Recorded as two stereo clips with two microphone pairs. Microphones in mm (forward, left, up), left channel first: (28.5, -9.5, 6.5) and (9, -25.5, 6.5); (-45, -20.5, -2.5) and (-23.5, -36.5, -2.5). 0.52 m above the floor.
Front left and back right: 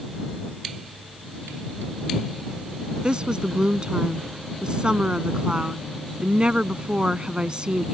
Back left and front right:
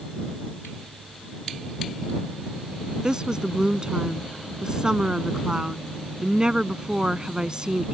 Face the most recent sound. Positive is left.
turn(degrees=-95)